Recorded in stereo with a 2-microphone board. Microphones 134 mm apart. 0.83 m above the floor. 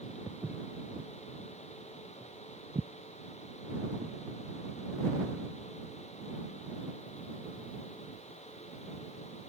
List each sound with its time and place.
0.3 s footsteps: 15° right (ahead or behind); by 4.2 s 65° right (ahead or behind)